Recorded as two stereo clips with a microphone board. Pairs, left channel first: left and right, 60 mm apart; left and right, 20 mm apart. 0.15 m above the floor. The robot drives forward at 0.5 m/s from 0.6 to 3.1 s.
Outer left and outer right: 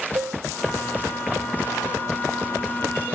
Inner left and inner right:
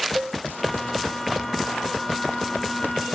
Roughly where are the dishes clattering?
Right.